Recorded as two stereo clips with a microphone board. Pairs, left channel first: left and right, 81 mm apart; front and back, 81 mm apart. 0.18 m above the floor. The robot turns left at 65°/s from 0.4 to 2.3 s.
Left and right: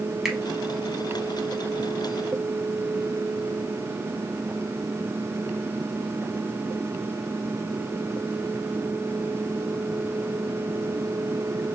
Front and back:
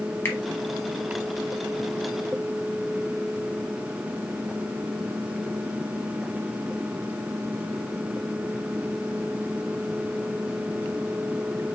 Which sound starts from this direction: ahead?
A finger snap, at 0.2 s.